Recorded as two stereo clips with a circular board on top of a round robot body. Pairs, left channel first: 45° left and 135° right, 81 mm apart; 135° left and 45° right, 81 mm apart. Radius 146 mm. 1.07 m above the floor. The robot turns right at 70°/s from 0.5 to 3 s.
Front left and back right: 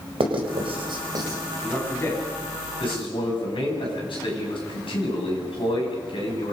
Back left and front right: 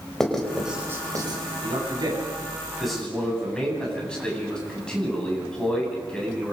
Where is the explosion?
I don't hear an explosion.